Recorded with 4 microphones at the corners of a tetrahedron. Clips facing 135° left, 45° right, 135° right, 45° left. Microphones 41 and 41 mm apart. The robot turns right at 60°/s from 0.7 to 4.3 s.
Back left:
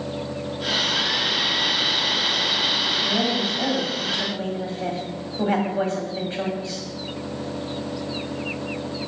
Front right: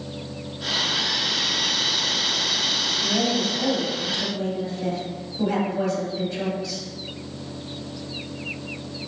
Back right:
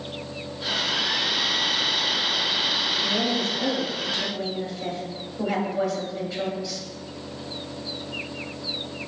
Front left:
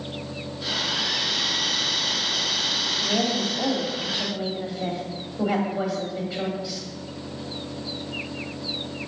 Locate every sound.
3.0 s a woman speaking: 40° left, 1.5 m; by 6.8 s 120° left, 1.5 m